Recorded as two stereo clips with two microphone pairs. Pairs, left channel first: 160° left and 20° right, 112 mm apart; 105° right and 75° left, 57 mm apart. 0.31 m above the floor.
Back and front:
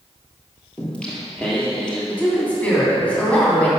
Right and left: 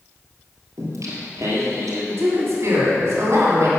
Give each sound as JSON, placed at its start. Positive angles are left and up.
{"t": 0.8, "sound": "singing", "azimuth_deg": 80, "distance_m": 2.5}
{"t": 2.1, "sound": "a woman speaking", "azimuth_deg": 85, "distance_m": 2.5}